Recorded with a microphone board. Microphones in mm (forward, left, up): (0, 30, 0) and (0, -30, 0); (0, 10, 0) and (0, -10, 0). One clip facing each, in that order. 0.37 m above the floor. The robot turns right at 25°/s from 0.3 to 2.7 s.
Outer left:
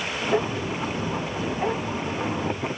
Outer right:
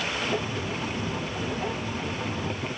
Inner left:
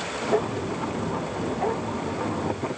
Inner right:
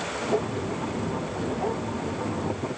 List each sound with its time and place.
Only background noise.